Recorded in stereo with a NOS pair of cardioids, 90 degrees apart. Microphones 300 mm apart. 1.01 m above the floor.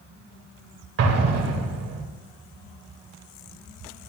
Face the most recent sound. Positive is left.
turn(degrees=-55)